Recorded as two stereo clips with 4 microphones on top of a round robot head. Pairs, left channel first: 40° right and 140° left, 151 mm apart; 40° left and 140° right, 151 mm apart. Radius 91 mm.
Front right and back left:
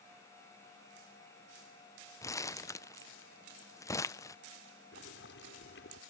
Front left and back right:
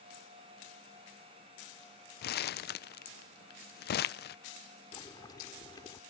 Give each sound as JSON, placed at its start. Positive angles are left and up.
{"t": 2.2, "sound": "crumpling", "azimuth_deg": 30}
{"t": 4.9, "sound": "boiling", "azimuth_deg": -30}